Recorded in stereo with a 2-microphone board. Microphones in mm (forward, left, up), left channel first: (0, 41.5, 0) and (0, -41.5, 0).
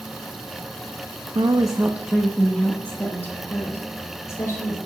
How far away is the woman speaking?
About 0.9 m.